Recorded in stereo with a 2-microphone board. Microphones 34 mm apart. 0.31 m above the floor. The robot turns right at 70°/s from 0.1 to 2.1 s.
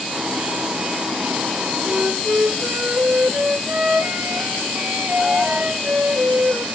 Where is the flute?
50° right (ahead or behind), 1.1 m; by 6.7 s 70° right (ahead or behind), 1.1 m.